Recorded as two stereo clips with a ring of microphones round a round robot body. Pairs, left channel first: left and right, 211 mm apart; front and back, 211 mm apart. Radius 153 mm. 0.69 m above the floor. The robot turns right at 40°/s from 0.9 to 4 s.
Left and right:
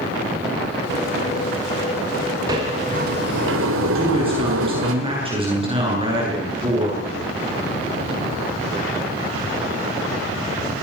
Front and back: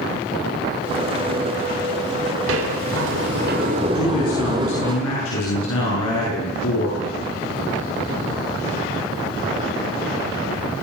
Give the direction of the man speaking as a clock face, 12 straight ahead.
1 o'clock.